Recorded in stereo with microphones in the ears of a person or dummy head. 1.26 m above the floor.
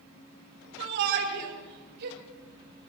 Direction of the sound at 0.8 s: 70° right (ahead or behind).